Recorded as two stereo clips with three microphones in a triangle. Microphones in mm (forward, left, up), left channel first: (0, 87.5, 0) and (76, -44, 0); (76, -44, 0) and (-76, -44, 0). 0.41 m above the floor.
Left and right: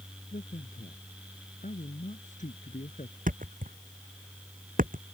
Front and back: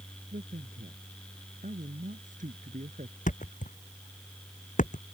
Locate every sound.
0.3 s a man speaking: 155° left
3.3 s a thud: 35° right